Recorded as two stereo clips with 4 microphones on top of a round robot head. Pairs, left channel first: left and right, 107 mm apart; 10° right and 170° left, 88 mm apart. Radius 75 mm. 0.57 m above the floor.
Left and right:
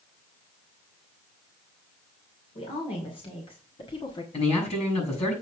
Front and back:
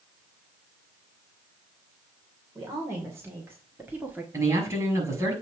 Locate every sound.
2.5 s a woman speaking: 115° left, 2.5 m; by 4.2 s 105° left, 1.5 m
4.3 s a man speaking: 115° left, 6 m